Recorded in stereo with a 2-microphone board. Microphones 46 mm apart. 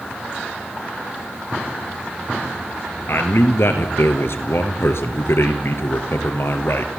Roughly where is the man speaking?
Left.